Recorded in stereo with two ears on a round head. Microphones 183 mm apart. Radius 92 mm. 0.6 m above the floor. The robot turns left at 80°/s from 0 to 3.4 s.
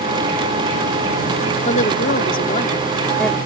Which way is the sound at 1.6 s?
130° left.